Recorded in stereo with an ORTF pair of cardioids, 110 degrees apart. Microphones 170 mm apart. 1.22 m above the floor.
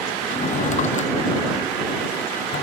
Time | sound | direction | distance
0.3 | a drawer | 45° left | ?